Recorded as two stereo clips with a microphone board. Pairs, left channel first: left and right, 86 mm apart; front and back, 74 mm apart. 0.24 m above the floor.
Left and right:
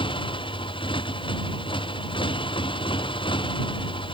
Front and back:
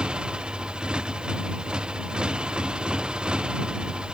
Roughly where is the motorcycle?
Left.